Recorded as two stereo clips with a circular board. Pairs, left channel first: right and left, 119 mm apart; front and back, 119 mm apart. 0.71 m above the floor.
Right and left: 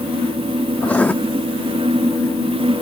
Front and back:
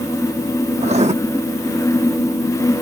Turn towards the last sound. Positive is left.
turn(degrees=-170)